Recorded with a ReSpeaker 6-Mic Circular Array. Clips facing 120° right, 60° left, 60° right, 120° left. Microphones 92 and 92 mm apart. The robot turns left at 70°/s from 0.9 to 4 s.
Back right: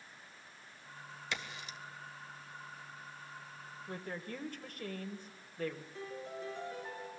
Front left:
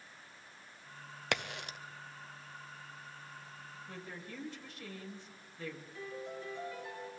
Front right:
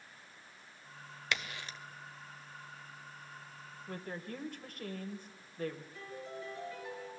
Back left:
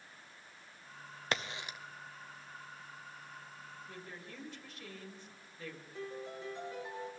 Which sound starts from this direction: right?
A woman speaking, at 3.9 s.